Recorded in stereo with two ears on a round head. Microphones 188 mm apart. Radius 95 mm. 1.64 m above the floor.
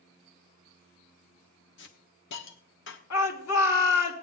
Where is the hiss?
60° left (ahead or behind), 1.3 m.